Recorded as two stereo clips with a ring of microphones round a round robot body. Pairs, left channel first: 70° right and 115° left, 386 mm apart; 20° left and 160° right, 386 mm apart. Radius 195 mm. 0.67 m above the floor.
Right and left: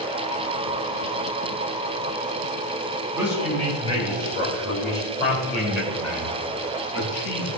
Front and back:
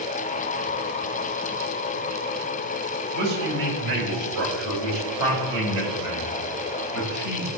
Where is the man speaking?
170° right, 1.4 m; by 7.5 s 120° right, 6.5 m.